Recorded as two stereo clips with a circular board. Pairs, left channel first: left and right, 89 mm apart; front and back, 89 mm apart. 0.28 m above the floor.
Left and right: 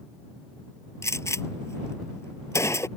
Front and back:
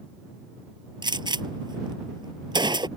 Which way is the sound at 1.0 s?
145° left.